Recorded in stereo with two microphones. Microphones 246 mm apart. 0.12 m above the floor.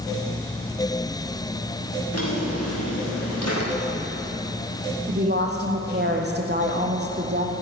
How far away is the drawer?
About 8.5 m.